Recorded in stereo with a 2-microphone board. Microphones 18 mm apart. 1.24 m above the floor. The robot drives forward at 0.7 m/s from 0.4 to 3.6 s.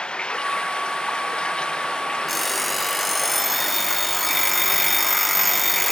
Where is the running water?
85° left; by 5.9 s 80° left.